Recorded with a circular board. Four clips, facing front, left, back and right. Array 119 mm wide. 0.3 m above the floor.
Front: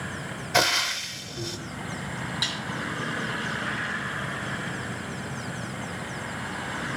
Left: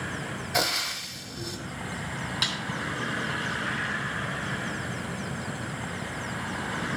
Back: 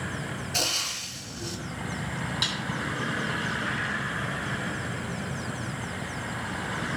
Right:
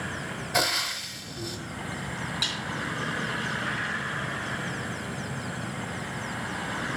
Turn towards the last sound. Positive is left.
turn(degrees=110)